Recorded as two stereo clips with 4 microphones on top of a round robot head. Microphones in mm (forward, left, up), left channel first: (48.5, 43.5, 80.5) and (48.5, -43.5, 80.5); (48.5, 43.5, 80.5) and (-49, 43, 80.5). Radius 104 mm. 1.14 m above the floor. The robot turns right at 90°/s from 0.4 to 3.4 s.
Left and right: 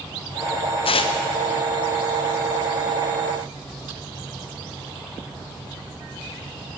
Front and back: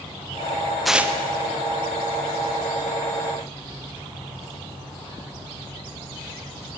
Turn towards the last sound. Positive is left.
turn(degrees=-40)